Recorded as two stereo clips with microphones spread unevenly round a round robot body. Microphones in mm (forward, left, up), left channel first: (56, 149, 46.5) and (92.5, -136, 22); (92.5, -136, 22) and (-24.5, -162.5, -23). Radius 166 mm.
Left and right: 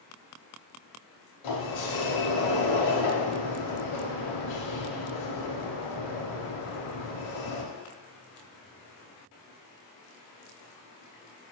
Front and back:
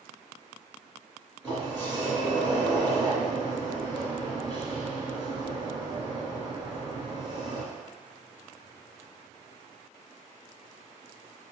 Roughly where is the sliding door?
Left.